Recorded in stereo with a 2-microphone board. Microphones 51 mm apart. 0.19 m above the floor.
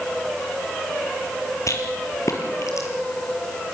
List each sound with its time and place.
1.7 s a rattle: 70° left (ahead or behind), 3.5 m